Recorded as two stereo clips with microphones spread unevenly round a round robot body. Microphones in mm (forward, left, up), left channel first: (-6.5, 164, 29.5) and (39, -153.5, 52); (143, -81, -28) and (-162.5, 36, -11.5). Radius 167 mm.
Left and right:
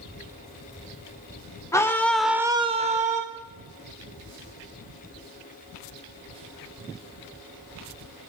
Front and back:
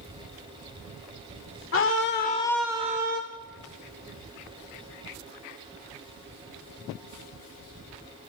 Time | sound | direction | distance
1.7 | a scream | 20° left | 1.5 m